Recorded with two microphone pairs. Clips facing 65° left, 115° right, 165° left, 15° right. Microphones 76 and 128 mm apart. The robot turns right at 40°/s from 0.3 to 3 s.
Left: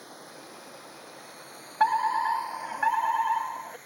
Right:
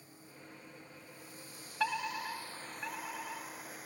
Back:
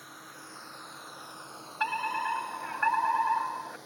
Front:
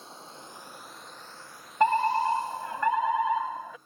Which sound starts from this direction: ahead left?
Running water, at 0.0 s.